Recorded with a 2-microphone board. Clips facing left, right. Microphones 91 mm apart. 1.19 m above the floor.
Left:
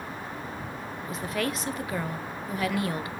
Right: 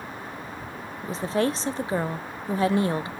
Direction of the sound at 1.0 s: 30° right (ahead or behind).